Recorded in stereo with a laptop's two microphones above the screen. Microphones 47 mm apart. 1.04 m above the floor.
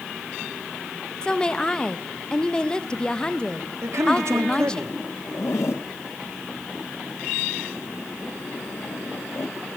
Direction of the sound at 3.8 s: 80° right.